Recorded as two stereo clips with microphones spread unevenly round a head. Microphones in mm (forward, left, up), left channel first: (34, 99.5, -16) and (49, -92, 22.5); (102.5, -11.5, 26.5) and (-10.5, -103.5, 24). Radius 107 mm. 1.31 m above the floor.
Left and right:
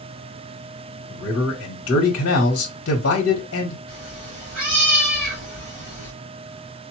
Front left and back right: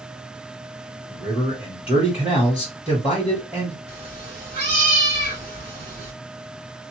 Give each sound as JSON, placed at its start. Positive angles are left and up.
{"t": 1.1, "sound": "a man speaking", "azimuth_deg": 135, "distance_m": 0.8}
{"t": 3.9, "sound": "a cat meowing", "azimuth_deg": -95, "distance_m": 2.5}